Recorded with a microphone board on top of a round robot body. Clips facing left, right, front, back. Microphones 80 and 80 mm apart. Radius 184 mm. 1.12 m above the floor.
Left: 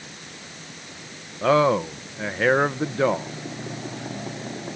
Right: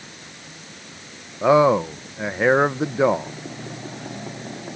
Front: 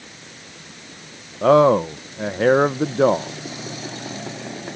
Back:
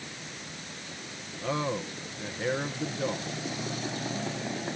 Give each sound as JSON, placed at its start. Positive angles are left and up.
{"t": 1.4, "sound": "a man speaking", "azimuth_deg": -15}